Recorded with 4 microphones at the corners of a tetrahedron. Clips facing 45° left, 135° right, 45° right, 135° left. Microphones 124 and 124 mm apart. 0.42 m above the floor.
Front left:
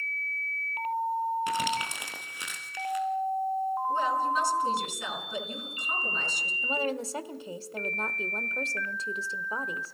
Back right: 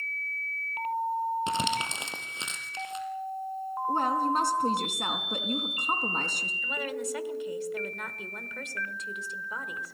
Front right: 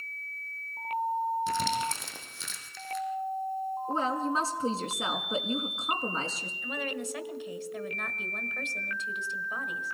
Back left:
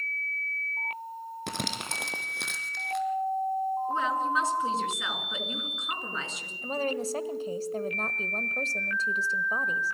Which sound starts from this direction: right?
A woman speaking, at 3.9 s.